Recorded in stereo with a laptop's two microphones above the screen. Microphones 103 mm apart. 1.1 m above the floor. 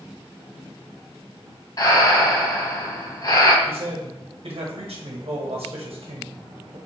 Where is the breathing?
40° left (ahead or behind), 0.8 m.